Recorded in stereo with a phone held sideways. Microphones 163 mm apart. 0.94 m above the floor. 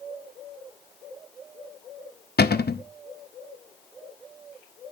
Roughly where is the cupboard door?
Left.